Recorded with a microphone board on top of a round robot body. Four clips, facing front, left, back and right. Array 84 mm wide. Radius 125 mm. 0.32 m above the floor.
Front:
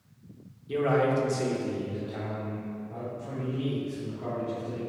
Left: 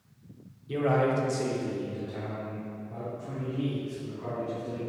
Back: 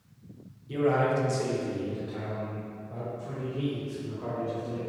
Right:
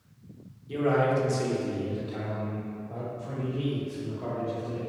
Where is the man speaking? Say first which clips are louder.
Right 1 dB, even; 45° left, 1.4 m; by 4.8 s 110° right, 4 m.